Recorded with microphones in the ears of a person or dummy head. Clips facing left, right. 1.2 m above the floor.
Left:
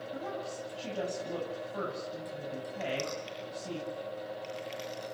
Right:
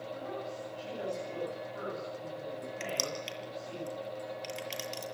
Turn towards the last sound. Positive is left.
turn(degrees=-75)  # may be behind; listen again after turning